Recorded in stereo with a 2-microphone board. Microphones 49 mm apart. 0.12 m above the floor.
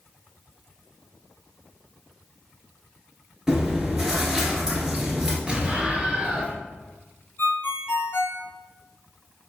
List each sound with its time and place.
3.5 s chewing: 15° right (ahead or behind), 1.4 m
5.5 s an explosion: 25° right (ahead or behind), 1.1 m
7.4 s a ringtone: 60° left (ahead or behind), 1.1 m